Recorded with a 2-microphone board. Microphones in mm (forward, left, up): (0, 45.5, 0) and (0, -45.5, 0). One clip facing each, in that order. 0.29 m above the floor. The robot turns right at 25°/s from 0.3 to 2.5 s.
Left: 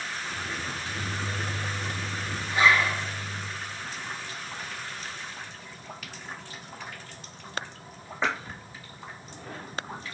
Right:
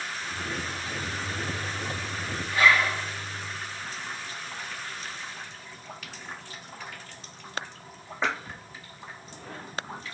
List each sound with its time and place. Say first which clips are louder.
0.7 s a microwave: even; 80° left, 3 m; by 3.5 s 125° left, 3 m
2.5 s a zipper: even; 25° left (ahead or behind), 6 m